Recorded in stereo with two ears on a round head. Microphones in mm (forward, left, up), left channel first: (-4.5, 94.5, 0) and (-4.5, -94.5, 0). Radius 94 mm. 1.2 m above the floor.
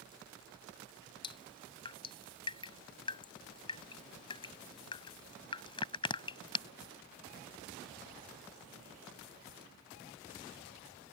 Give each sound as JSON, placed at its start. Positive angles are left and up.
{"t": 1.2, "sound": "dripping", "side_deg": 25}